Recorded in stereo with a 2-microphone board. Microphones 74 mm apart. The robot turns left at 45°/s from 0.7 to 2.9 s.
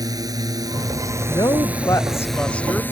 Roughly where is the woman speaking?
Left.